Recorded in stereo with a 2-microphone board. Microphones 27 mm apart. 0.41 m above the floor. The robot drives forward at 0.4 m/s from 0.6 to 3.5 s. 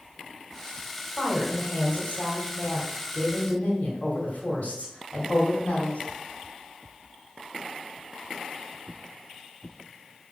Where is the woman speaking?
50° left (ahead or behind), 2.5 m; by 6.0 s 55° left (ahead or behind), 2.5 m.